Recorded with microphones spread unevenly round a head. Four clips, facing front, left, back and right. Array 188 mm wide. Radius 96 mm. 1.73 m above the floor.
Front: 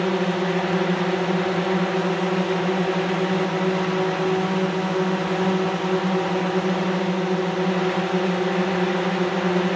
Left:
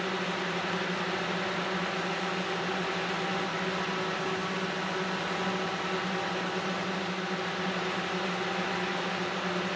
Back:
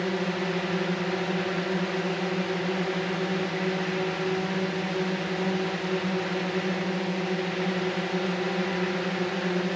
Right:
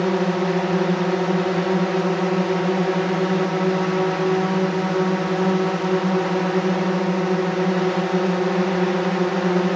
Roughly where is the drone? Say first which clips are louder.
Right 12 dB, front 6 dB; ahead right.